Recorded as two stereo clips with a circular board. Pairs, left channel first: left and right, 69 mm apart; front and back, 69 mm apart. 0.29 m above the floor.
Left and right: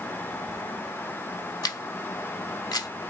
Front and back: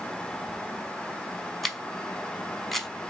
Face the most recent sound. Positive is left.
turn(degrees=85)